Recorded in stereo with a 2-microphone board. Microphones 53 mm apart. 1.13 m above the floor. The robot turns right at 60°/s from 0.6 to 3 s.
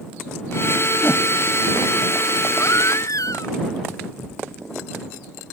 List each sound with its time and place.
1.0 s a whoosh: 45° left (ahead or behind); by 1.2 s 55° left (ahead or behind)
2.6 s a baby crying: 70° left (ahead or behind); by 3.5 s 85° left